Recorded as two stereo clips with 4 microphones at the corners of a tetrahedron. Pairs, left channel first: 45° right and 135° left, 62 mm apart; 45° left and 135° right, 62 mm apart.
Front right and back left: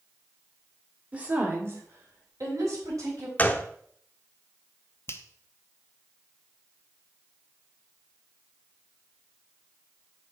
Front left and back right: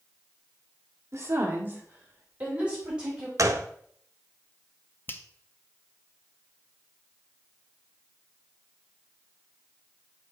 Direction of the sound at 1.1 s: 160° right.